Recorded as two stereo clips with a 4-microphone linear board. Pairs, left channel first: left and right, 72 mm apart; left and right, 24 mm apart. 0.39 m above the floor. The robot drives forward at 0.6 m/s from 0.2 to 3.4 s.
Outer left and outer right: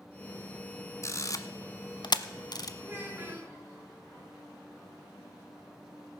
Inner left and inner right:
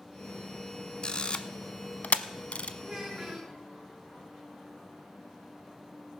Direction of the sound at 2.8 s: 30° right (ahead or behind).